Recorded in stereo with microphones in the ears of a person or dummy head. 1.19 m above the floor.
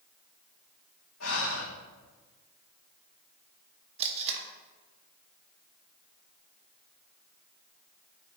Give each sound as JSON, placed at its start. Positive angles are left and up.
{"t": 1.2, "sound": "breathing", "side_deg": 75, "distance_m": 3.0}
{"t": 4.0, "sound": "tape being pulled", "side_deg": -35, "distance_m": 1.4}